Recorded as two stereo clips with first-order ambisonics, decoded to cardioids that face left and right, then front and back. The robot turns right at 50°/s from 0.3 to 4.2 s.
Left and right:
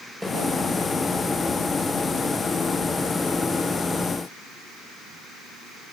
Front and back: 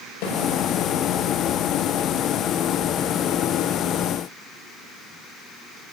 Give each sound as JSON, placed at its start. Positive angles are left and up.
{"t": 0.2, "sound": "a snare drum", "azimuth_deg": -5, "distance_m": 9.0}